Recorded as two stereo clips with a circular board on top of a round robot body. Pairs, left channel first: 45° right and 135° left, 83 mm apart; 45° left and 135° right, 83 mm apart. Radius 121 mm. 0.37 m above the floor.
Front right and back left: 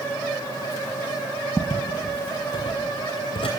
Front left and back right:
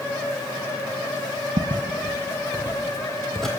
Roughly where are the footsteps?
Behind right.